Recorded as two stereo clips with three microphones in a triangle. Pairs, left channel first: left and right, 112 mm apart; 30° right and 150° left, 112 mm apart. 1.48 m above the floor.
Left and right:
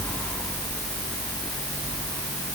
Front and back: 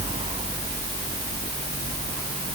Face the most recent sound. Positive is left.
No sound to turn to.